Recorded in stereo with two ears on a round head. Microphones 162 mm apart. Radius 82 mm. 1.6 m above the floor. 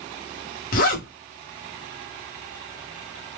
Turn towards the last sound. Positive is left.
turn(degrees=50)  # may be behind; listen again after turning